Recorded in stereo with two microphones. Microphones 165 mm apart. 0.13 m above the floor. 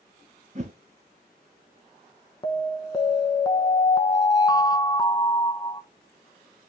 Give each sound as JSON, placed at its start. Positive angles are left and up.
{"t": 0.6, "sound": "a whoosh", "side_deg": -45, "distance_m": 1.3}
{"t": 2.4, "sound": "an alarm", "side_deg": 25, "distance_m": 0.8}